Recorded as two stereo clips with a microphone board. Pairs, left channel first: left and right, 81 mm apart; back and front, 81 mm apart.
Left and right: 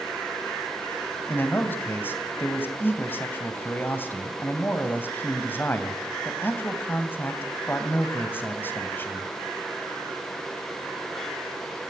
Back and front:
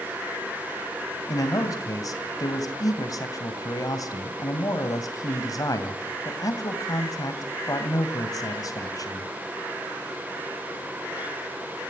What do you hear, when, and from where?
1.3 s a man speaking: 150° left, 2.5 m